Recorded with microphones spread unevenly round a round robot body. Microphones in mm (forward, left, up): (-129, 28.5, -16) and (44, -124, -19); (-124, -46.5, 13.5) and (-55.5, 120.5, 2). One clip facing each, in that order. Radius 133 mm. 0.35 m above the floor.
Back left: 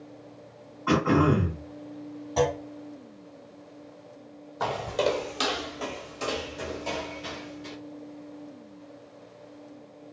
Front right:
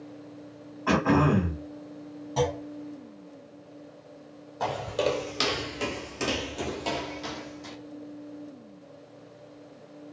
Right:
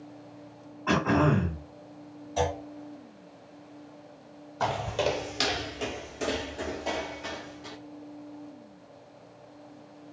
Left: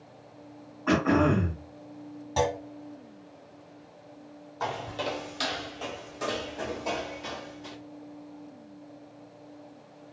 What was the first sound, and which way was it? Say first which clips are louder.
Throat clearing: back left 1 dB, left 2 dB; 20° right.